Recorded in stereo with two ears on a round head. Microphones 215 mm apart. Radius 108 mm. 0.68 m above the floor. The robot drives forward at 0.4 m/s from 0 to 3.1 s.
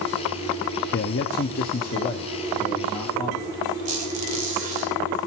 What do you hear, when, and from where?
0.9 s a man speaking: 45° left (ahead or behind), 0.6 m; by 3.5 s 25° left (ahead or behind), 1.1 m
3.9 s a squeak: 35° right (ahead or behind), 1.9 m